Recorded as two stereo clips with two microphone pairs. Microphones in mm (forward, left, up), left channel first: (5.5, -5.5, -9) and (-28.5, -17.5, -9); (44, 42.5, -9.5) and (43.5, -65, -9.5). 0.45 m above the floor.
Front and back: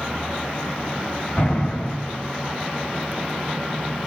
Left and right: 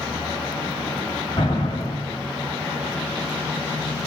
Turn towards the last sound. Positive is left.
turn(degrees=55)